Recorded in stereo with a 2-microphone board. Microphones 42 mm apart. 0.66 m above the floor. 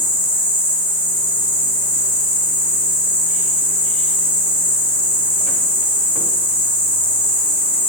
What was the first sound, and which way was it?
An insect, 55° right (ahead or behind).